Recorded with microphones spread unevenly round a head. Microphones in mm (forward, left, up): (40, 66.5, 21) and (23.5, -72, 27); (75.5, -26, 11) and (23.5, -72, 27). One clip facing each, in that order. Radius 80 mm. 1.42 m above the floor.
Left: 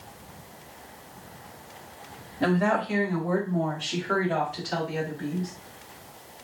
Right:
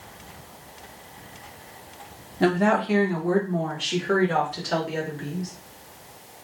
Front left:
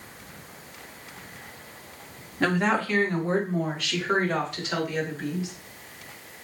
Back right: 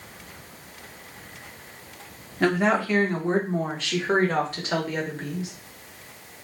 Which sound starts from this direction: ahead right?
A woman speaking, at 2.4 s.